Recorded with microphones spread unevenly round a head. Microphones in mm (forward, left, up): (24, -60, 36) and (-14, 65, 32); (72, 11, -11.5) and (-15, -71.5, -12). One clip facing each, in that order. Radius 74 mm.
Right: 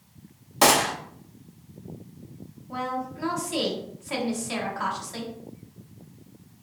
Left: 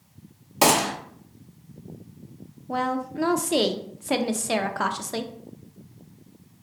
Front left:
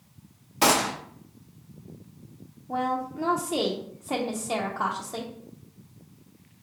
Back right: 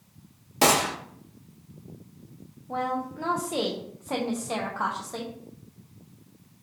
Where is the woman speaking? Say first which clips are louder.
Left 4 dB, front left 1 dB; 125° left, 0.5 m.